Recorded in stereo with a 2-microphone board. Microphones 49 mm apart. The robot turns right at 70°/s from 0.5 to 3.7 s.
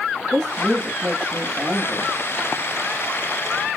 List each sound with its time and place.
0.3 s a woman speaking: 175° right, 4.5 m; by 2.1 s 60° right, 4.5 m